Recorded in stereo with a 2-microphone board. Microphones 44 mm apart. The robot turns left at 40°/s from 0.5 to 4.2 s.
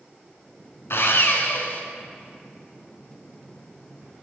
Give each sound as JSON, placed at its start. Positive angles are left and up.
{"t": 0.9, "sound": "sawing", "azimuth_deg": 80, "distance_m": 1.0}